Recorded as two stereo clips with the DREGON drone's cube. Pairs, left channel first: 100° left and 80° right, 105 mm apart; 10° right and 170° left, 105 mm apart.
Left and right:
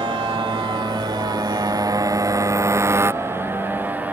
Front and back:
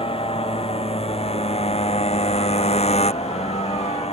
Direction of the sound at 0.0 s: 35° right.